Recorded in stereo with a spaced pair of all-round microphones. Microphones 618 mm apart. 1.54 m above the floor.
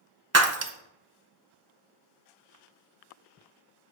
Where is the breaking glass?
25° right (ahead or behind), 0.7 m.